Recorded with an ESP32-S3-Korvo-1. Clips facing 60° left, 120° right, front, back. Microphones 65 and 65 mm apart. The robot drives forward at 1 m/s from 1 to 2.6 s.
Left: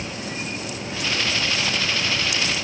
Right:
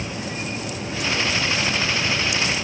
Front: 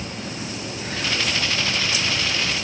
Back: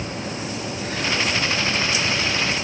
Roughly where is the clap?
No clap in this recording.